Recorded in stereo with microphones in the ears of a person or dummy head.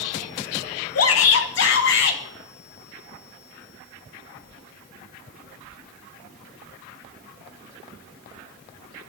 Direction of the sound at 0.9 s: 70° left (ahead or behind).